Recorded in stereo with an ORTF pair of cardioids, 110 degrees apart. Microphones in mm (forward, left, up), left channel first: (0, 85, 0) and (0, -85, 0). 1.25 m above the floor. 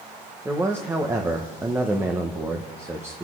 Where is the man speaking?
15° right, 1.0 m.